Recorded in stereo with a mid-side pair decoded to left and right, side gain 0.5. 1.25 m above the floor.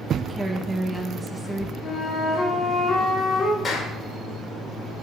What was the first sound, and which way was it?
A woman speaking, 15° right.